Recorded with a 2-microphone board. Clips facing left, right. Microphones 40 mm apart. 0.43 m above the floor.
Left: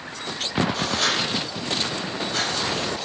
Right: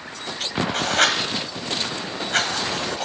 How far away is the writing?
About 1.1 m.